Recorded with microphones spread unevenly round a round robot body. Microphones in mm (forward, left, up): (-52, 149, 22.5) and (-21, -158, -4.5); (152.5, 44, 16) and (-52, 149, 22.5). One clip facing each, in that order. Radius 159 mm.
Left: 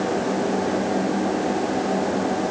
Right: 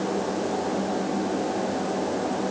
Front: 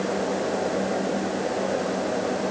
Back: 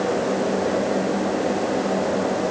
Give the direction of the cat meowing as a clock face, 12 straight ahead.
I don't hear a cat meowing.